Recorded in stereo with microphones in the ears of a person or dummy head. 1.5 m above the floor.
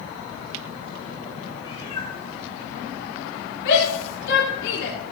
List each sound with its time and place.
1.6 s a cat meowing: 25° left (ahead or behind), 6.5 m
3.6 s a shout: 80° left, 3.5 m